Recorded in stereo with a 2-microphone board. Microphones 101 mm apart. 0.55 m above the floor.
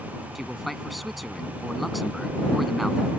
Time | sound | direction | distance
0.3 | a man speaking | centre (ahead or behind) | ?